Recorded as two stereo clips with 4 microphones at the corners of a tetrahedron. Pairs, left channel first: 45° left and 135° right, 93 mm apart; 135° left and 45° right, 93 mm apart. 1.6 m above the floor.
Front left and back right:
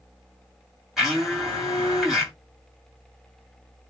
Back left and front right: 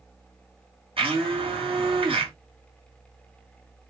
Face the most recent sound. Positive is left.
turn(degrees=-50)